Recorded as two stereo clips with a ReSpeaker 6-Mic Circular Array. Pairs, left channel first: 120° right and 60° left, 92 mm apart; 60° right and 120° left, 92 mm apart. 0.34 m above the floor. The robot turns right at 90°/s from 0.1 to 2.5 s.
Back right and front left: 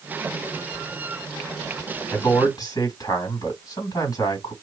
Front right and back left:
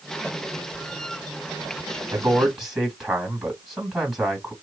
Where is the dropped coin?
I don't hear a dropped coin.